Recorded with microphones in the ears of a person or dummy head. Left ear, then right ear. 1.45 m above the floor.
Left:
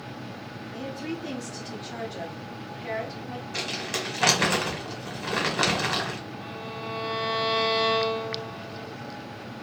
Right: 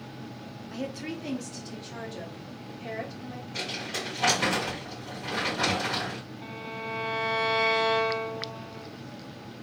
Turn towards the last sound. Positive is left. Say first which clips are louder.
# right 2 dB
turn(degrees=35)  # may be behind; listen again after turning